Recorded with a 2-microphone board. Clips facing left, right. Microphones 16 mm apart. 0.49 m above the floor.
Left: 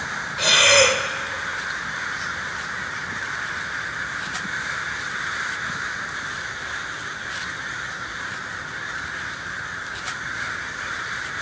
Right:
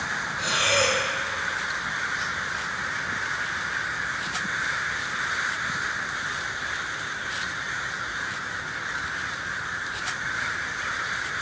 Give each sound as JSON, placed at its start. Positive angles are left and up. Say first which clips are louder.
{"t": 0.4, "sound": "breathing", "louder": "left 8 dB", "side_deg": 70, "distance_m": 0.7}